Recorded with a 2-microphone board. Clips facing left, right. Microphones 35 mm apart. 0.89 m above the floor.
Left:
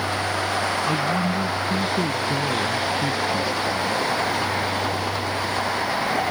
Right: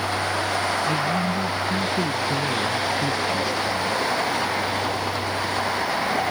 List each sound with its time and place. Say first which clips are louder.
0.9 s a man speaking: even; 20° left (ahead or behind); by 4.0 s 10° left (ahead or behind)